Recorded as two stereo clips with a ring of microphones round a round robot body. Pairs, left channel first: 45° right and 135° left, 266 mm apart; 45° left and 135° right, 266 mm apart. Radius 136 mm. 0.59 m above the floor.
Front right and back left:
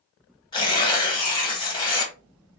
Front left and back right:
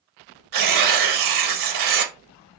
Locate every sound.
0.5 s tearing paper: 120° right, 0.7 m